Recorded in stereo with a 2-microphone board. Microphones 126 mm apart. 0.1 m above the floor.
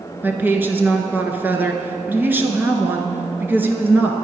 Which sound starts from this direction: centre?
A woman speaking, at 0.2 s.